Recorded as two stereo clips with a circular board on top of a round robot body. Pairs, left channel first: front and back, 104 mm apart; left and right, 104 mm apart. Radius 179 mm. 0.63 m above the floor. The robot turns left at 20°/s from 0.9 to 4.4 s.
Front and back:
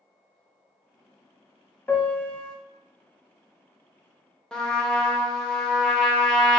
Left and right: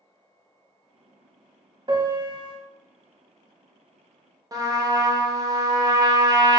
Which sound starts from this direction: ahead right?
A piano, at 1.9 s.